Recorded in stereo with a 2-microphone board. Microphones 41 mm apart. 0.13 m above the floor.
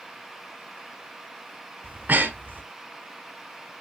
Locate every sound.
1.8 s breathing: 45° right (ahead or behind), 1.2 m